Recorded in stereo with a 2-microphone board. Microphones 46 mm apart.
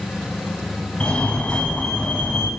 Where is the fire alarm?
20° left (ahead or behind), 2.5 m.